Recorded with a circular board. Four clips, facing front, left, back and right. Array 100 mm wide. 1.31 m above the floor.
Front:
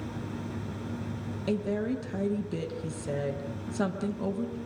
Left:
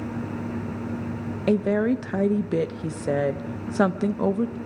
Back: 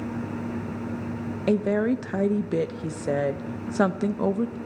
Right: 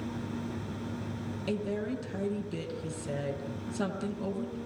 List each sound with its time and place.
1.5 s a woman speaking: 130° left, 1.0 m